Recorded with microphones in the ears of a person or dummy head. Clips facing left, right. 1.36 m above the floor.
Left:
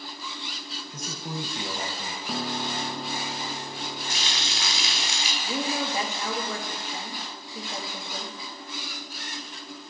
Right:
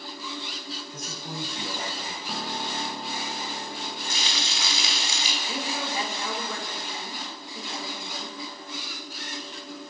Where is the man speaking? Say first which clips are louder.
Left 5 dB; 65° left (ahead or behind), 0.9 m; by 2.2 s 85° left, 1.7 m.